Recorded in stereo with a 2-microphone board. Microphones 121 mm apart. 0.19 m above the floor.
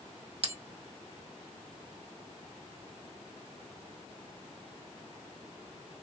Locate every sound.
0.4 s a bell: 55° right (ahead or behind), 0.8 m